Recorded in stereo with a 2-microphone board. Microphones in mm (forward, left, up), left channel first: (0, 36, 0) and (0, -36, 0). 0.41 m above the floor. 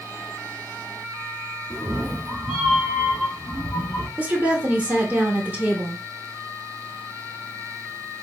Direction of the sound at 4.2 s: 20° right (ahead or behind).